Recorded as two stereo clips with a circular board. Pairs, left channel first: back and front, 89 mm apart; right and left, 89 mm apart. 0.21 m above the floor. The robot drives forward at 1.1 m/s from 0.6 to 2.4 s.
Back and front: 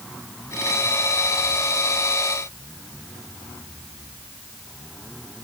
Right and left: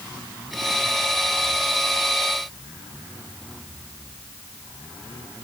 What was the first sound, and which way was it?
Only background noise.